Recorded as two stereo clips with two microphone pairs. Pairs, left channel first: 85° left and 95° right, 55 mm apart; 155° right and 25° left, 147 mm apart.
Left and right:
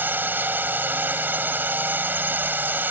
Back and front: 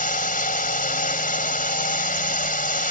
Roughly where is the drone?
Behind right.